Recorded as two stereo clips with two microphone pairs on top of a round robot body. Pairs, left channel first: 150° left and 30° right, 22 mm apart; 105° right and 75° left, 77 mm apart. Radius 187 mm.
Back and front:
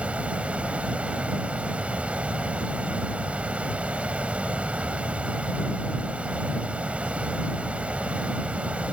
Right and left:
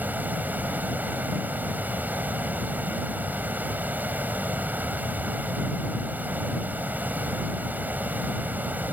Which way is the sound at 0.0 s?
5° left.